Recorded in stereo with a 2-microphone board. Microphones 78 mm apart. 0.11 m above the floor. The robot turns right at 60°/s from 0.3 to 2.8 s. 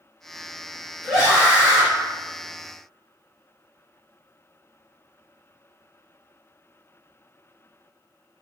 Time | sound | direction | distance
1.0 | a scream | 5° right (ahead or behind) | 1.8 m